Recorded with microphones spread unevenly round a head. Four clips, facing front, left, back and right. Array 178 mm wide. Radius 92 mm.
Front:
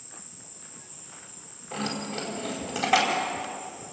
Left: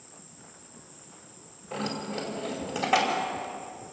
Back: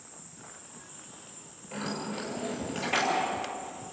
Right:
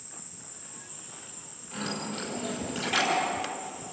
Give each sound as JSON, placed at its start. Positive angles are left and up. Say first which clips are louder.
{"t": 0.0, "sound": "an insect", "louder": "right 1 dB, back 1 dB", "azimuth_deg": 180, "distance_m": 6.0}
{"t": 1.7, "sound": "keys jangling", "louder": "left 2 dB, front 3 dB", "azimuth_deg": 65, "distance_m": 5.0}